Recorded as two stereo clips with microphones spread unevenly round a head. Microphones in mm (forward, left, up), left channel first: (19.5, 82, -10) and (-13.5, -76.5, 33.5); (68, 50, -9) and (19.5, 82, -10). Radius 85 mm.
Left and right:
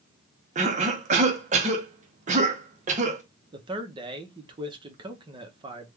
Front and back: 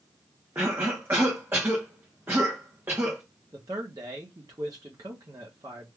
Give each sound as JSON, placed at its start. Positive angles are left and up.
{"t": 0.6, "sound": "a cough", "azimuth_deg": -150, "distance_m": 0.8}
{"t": 3.5, "sound": "a man speaking", "azimuth_deg": -170, "distance_m": 0.7}